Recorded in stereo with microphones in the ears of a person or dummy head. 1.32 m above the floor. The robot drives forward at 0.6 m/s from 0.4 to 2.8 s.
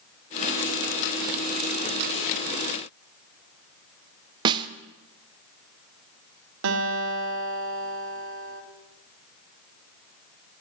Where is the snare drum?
25° right (ahead or behind), 0.6 m.